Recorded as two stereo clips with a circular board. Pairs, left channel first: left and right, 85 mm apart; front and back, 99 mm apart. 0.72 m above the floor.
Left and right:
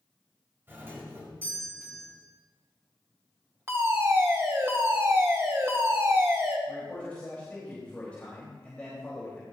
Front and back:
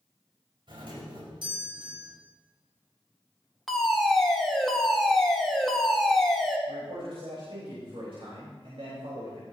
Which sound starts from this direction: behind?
A man speaking, at 6.7 s.